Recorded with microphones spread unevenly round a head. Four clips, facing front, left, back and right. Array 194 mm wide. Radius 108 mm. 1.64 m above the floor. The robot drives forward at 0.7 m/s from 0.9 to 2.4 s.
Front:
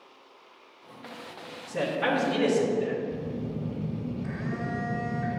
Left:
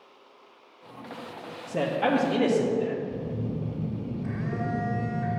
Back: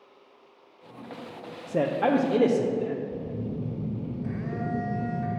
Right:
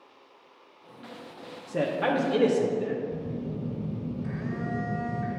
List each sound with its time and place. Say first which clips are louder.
1.7 s a man speaking: left 1 dB, back 4 dB; 170° right, 0.5 m; by 3.0 s 175° right, 1.0 m
3.1 s a phone buzzing: left 1 dB, even; 145° right, 1.3 m